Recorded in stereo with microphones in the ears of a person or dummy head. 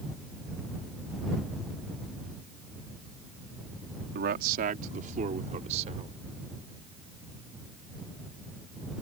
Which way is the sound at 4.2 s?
50° right (ahead or behind).